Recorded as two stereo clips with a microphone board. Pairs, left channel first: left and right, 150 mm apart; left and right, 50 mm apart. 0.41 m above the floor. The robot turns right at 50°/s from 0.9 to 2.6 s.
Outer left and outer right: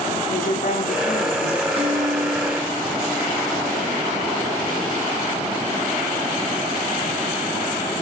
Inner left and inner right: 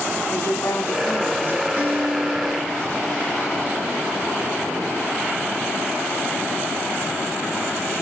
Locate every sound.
0.3 s a woman speaking: 105° left, 3.5 m; by 1.7 s 140° left, 3.5 m
1.8 s a guitar: 40° right, 2.5 m; by 3.9 s straight ahead, 2.5 m